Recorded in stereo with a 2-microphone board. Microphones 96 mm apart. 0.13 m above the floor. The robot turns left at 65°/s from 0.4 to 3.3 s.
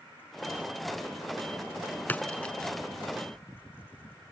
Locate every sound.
2.1 s a splash: 20° left (ahead or behind); by 2.7 s 10° left (ahead or behind)